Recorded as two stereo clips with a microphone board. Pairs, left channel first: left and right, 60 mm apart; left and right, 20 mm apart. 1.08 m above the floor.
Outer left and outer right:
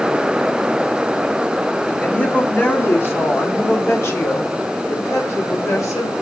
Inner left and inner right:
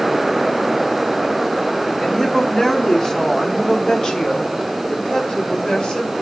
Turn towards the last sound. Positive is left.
turn(degrees=55)  # may be behind; listen again after turning